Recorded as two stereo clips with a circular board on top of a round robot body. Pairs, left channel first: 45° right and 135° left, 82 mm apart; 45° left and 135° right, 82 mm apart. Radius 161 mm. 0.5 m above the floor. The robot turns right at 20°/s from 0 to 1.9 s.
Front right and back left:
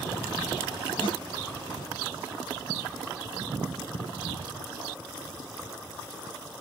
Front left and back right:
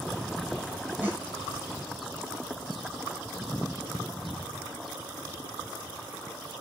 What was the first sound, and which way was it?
A snare drum, 60° right.